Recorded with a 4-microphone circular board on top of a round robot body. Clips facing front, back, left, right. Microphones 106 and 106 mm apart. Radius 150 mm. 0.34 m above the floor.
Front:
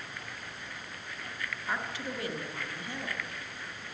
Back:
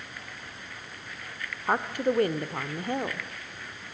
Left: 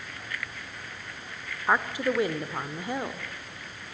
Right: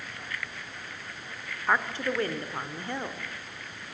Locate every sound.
1.7 s a woman speaking: 165° left, 1.2 m